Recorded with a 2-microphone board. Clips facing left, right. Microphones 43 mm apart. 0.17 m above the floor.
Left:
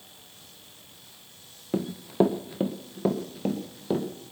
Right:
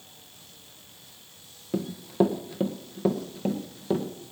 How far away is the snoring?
No snoring in this recording.